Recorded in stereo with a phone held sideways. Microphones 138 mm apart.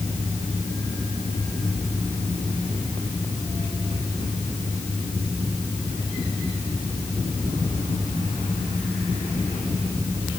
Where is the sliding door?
I don't hear a sliding door.